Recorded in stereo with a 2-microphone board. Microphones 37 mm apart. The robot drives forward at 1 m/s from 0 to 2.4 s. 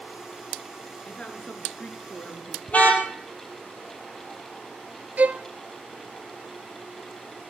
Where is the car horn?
40° left (ahead or behind), 3 m.